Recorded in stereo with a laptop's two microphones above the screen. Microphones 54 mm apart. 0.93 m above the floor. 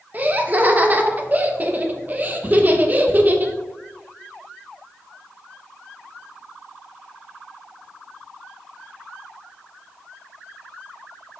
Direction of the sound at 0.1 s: 30° right (ahead or behind).